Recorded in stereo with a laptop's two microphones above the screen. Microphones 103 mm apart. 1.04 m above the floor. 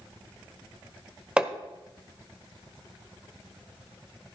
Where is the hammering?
10° right (ahead or behind), 1.1 m.